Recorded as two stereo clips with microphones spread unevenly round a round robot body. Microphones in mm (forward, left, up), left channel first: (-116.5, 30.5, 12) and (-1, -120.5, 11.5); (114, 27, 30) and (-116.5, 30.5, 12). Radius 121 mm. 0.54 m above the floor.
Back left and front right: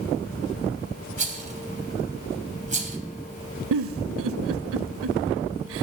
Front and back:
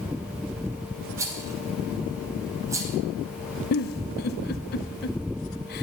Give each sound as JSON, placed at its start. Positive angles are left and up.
{"t": 1.2, "sound": "a rattle", "azimuth_deg": -105, "distance_m": 2.5}
{"t": 3.7, "sound": "a giggle", "azimuth_deg": -55, "distance_m": 0.6}